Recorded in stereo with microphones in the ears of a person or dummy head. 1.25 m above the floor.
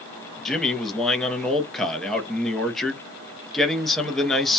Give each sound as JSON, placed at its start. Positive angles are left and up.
{"t": 0.5, "sound": "a man speaking", "side_deg": 0, "distance_m": 0.5}